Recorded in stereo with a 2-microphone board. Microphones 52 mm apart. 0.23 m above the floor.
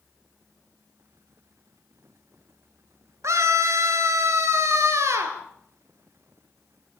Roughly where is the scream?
Right.